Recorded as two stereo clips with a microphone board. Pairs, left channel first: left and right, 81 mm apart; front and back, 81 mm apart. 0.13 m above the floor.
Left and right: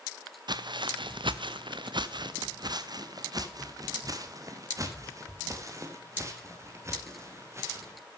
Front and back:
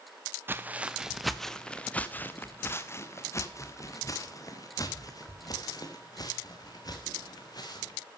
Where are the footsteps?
115° right, 0.9 m; by 8.0 s 35° right, 4.5 m.